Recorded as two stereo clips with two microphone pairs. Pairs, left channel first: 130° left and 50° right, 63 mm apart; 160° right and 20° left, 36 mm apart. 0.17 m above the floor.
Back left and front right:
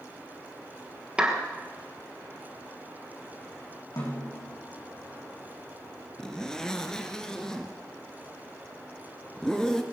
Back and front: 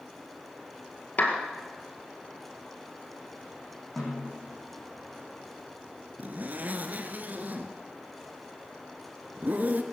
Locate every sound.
1.2 s a clap: 125° right, 2 m
4.0 s a snare drum: 115° left, 4 m
6.2 s a zipper: 50° left, 1.1 m